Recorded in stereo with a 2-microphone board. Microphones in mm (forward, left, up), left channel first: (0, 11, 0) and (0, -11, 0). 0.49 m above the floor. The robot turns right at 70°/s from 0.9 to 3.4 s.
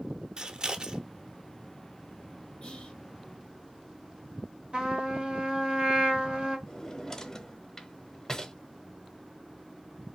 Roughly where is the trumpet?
Right.